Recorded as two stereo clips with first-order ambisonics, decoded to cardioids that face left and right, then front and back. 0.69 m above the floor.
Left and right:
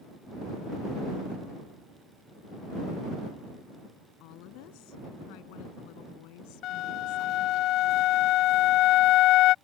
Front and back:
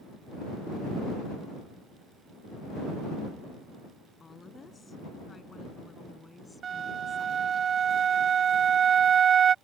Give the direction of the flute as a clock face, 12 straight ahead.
8 o'clock.